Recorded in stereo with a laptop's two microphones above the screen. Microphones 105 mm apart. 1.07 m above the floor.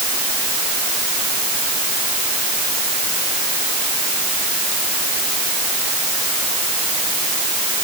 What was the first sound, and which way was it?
Only background noise.